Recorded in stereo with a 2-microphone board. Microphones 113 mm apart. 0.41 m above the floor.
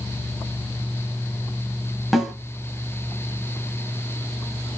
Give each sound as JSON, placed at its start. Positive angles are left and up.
{"t": 2.1, "sound": "a snare drum", "side_deg": 0, "distance_m": 0.8}